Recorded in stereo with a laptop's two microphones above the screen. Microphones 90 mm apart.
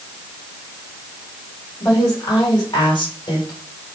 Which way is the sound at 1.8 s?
40° left (ahead or behind).